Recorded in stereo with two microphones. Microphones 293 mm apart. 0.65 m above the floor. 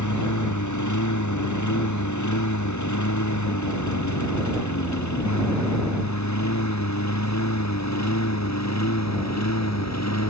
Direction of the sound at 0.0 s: 80° left.